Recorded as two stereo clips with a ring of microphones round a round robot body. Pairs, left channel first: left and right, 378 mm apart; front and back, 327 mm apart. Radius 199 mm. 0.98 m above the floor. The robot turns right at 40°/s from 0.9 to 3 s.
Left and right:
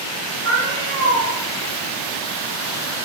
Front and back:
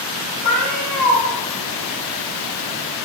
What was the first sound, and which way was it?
A cat meowing, 35° right.